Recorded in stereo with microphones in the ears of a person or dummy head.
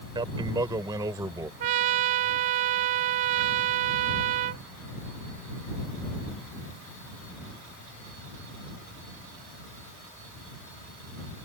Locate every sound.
0.1 s a man speaking: 20° right (ahead or behind); by 1.5 s 15° right (ahead or behind)
1.6 s a trumpet: 30° right (ahead or behind)